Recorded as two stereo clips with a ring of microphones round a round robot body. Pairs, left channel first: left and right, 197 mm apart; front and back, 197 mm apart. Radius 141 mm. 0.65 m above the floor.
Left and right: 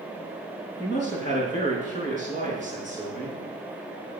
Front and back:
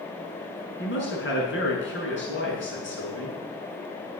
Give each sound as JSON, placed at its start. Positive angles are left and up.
{"t": 0.8, "sound": "a man speaking", "azimuth_deg": 25, "distance_m": 6.5}